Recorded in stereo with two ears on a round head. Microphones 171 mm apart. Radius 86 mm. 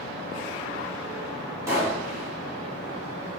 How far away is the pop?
About 2 m.